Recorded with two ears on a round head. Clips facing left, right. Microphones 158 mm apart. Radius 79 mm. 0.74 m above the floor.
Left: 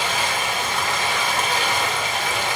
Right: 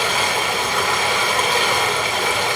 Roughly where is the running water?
Right.